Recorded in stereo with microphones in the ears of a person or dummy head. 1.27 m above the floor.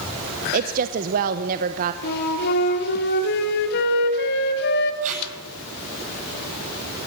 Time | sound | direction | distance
0.5 | a woman speaking | 45° right (ahead or behind) | 1.0 m
2.0 | a flute | 60° left (ahead or behind) | 3 m
5.0 | tape being pulled | 40° right (ahead or behind) | 9 m